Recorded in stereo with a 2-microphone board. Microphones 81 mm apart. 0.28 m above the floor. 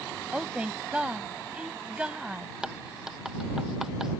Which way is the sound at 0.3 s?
15° right (ahead or behind).